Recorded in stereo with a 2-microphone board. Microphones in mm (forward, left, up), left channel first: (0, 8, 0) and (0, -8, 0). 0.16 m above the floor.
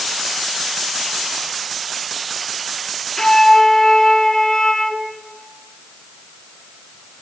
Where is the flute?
25° left (ahead or behind), 2.0 m.